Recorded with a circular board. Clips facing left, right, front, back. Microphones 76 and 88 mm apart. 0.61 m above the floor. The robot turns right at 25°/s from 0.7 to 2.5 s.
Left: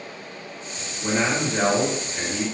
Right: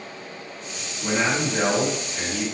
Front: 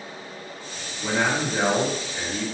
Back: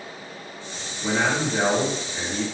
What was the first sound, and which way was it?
A man speaking, 80° left.